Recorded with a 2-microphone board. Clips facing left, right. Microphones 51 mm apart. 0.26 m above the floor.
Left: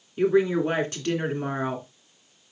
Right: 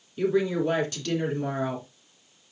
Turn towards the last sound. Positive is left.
turn(degrees=35)  # may be behind; listen again after turning